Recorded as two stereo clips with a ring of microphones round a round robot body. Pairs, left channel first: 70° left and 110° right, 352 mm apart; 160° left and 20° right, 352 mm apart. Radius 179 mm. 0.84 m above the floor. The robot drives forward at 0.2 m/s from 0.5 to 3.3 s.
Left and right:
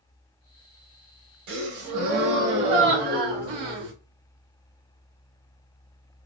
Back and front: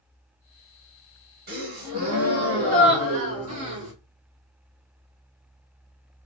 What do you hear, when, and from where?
1.5 s a gasp: 85° right, 3 m; by 3.9 s 95° right, 3 m